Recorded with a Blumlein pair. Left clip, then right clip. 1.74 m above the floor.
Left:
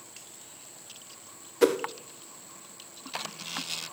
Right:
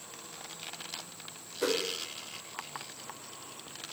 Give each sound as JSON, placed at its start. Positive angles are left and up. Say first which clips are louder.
{"t": 1.6, "sound": "a whoosh", "louder": "left 7 dB", "azimuth_deg": 60, "distance_m": 0.6}